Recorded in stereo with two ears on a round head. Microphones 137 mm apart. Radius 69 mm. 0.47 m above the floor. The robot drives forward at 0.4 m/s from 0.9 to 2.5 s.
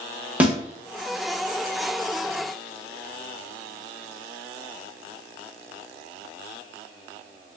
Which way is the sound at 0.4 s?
10° right (ahead or behind).